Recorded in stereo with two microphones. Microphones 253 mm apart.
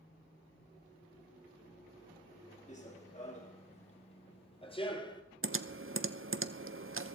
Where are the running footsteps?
30° left (ahead or behind), 3 m; by 5.2 s 15° left (ahead or behind), 1.6 m.